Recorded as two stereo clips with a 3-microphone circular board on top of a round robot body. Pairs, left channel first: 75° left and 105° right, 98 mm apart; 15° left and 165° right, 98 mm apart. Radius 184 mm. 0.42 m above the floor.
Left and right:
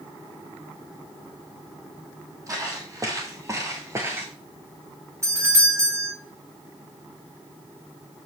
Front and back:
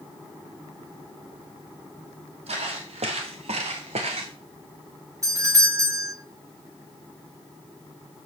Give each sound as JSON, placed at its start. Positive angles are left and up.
{"t": 2.5, "sound": "footsteps", "azimuth_deg": -165, "distance_m": 1.5}
{"t": 5.2, "sound": "a doorbell", "azimuth_deg": -140, "distance_m": 2.0}